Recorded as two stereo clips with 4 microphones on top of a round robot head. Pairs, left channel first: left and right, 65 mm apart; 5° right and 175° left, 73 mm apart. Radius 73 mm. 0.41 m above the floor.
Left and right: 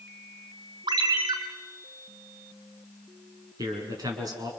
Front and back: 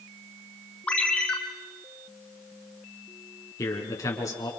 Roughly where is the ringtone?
Right.